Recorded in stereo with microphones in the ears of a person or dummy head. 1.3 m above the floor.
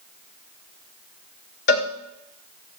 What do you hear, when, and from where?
1.7 s a cowbell: 55° left (ahead or behind), 1.4 m